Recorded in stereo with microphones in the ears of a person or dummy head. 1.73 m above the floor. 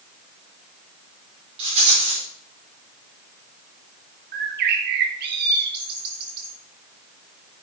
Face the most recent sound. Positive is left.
turn(degrees=-55)  # may be behind; listen again after turning